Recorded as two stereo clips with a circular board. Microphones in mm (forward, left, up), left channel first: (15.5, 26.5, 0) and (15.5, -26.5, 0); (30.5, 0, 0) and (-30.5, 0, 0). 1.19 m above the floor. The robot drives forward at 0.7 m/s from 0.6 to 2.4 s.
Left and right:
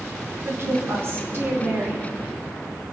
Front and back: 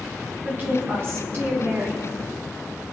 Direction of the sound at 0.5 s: 130° right.